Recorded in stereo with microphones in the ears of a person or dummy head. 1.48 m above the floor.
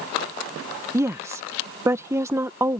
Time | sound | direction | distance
0.9 | a woman speaking | 15° right (ahead or behind) | ?